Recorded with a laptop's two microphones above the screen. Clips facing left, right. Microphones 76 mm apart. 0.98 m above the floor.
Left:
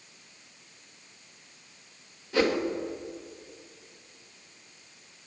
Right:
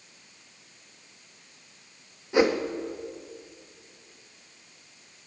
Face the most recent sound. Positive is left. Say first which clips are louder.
# right 3 dB
turn(degrees=-20)  # may be behind; listen again after turning